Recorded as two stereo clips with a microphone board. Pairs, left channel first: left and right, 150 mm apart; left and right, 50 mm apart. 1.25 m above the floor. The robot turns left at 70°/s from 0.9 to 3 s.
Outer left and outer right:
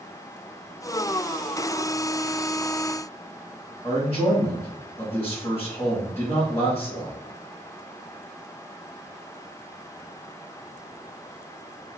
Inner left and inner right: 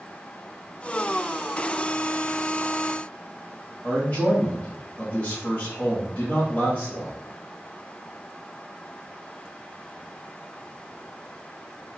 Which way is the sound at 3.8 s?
25° left (ahead or behind).